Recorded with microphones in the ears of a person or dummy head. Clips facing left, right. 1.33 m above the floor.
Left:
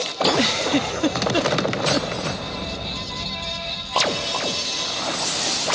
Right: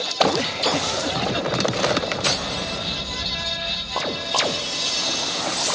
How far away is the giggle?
About 0.5 m.